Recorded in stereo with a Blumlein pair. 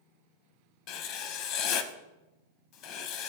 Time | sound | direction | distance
0.9 | writing | 35° left | 0.8 m